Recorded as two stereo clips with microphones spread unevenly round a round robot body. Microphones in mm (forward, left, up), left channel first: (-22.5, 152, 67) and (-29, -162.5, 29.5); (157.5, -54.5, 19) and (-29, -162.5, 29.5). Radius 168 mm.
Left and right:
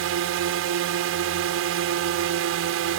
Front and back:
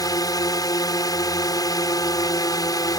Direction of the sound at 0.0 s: 40° right.